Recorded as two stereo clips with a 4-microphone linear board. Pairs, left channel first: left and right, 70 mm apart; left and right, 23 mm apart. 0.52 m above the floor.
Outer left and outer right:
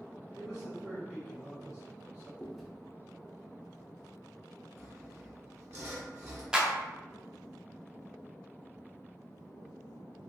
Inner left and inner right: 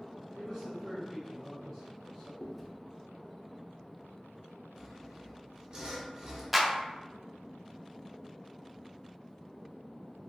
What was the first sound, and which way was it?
A man speaking, centre (ahead or behind).